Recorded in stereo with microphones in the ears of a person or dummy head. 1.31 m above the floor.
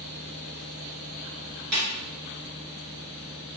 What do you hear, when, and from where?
1.7 s a snare drum: 60° right (ahead or behind), 2.5 m